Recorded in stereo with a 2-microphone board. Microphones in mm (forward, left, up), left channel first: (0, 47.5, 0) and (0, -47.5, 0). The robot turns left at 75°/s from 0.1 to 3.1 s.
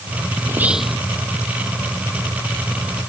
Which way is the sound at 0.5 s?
150° right.